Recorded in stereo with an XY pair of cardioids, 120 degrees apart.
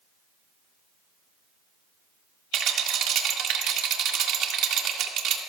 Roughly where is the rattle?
Right.